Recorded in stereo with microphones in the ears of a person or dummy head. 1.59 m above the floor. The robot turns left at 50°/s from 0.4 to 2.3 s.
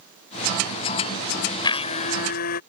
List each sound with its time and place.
1.6 s a blender: 155° left; by 2.6 s 125° left